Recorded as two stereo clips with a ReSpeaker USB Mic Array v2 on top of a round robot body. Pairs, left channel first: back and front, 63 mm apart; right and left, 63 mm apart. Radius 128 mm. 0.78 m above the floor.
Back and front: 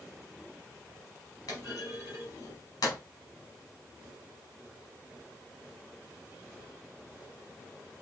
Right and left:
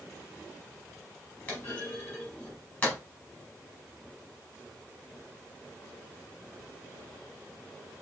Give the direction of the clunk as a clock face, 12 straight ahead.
5 o'clock.